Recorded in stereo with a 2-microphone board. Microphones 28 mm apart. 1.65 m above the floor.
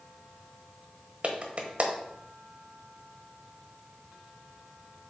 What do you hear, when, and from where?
1.2 s a clap: 45° right (ahead or behind), 1.1 m